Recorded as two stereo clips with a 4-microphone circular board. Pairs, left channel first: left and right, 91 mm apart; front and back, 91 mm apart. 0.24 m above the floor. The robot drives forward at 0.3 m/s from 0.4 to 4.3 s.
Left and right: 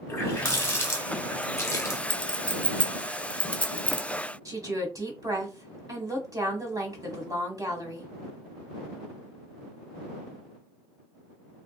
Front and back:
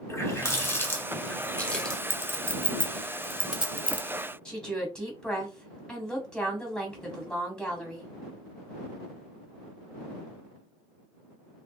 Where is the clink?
25° left, 0.7 m; by 4.1 s 145° left, 0.7 m.